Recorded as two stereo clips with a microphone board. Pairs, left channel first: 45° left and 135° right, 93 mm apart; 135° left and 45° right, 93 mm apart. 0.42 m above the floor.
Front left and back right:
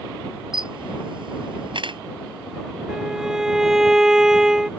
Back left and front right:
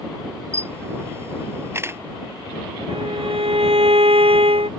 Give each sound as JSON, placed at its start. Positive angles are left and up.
{"t": 0.5, "sound": "a camera shutter", "azimuth_deg": -105}
{"t": 2.9, "sound": "a violin", "azimuth_deg": -50}